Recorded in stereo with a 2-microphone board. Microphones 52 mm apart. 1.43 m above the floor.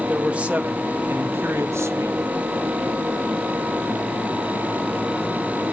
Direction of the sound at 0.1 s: 20° right (ahead or behind).